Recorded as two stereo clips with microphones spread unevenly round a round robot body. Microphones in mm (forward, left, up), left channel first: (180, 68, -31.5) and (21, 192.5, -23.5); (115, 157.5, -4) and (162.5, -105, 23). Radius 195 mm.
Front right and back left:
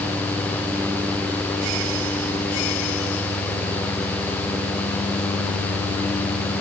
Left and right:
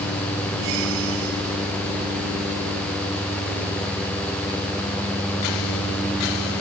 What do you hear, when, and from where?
Only background noise.